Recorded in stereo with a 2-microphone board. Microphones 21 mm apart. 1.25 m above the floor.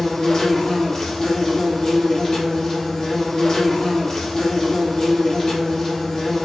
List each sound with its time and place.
0.0 s an insect: 20° left (ahead or behind), 2 m